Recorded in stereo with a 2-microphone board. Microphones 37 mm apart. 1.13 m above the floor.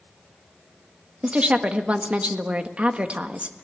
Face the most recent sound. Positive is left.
turn(degrees=-35)  # may be behind; listen again after turning